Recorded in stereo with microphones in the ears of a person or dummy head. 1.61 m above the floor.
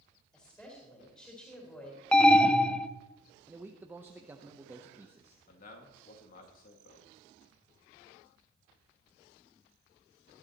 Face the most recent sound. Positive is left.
turn(degrees=50)  # may be behind; listen again after turning